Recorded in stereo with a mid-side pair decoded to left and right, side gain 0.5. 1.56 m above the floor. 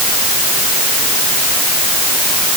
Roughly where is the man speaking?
I don't hear a man speaking.